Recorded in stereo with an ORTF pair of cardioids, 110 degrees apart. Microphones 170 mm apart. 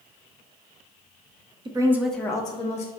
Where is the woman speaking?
25° right, 0.9 m; by 2.9 s 45° left, 1.1 m.